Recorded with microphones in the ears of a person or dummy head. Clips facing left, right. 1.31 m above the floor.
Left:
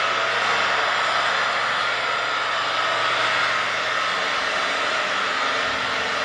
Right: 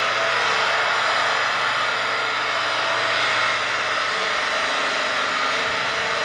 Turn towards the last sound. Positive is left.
turn(degrees=-15)  # may be behind; listen again after turning